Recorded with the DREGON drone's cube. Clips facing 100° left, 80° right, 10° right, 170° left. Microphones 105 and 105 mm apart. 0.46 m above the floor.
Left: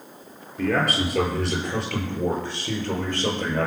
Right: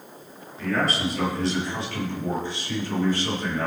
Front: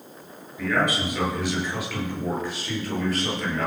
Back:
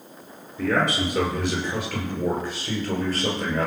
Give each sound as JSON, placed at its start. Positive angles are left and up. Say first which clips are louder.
{"t": 0.6, "sound": "a man speaking", "louder": "left 2 dB, back 1 dB", "azimuth_deg": 110, "distance_m": 8.0}